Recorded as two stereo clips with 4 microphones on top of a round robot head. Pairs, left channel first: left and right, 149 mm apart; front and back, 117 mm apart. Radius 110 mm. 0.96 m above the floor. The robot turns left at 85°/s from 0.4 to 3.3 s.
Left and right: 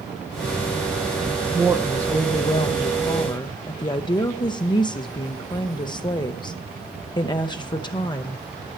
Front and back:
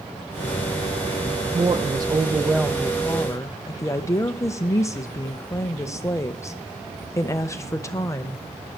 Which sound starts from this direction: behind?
A woman speaking, at 1.5 s.